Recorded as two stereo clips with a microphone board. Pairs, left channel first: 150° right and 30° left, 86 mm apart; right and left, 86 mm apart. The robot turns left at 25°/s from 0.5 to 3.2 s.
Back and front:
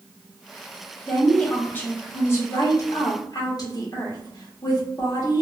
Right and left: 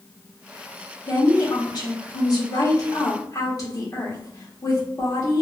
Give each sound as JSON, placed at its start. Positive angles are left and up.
{"t": 1.1, "sound": "a woman speaking", "azimuth_deg": -70, "distance_m": 1.2}